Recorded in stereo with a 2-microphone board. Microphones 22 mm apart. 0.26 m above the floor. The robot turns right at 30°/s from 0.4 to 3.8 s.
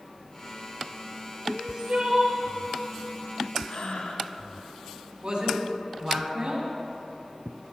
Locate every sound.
1.5 s crying: 45° right (ahead or behind), 1.0 m; by 2.4 s 75° right (ahead or behind), 1.0 m
3.7 s breathing: 60° left (ahead or behind), 0.7 m; by 4.3 s 55° left (ahead or behind), 0.7 m
5.2 s a man speaking: 45° right (ahead or behind), 1.8 m